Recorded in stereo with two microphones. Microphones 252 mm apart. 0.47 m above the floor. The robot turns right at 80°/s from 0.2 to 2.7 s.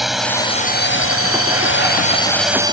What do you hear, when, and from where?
0.0 s a drone: straight ahead; by 2.7 s 160° right